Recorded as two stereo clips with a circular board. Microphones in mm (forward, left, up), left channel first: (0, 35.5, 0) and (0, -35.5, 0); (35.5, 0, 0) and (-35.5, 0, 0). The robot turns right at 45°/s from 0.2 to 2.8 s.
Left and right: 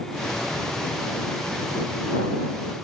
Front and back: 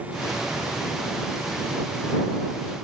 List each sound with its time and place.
Only background noise.